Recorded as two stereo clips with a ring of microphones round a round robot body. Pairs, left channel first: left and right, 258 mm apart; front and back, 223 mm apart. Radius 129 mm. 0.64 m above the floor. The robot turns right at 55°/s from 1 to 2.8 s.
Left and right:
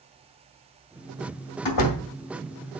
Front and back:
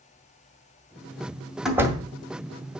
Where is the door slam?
90° left, 2 m; by 2.0 s 110° left, 2 m.